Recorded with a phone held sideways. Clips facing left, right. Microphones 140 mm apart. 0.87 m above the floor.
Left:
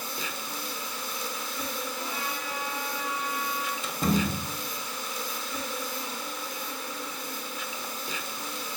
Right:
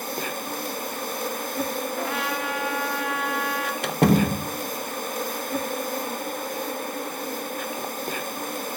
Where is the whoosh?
I don't hear a whoosh.